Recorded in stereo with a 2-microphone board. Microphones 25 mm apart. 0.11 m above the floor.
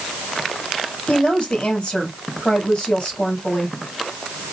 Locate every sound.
1.1 s a woman speaking: 50° left (ahead or behind), 2 m